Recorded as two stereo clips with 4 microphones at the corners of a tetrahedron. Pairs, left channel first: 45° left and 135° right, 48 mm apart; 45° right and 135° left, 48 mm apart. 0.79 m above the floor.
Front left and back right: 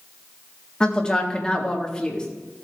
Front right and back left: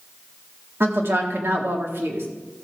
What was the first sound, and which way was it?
A woman speaking, 115° left.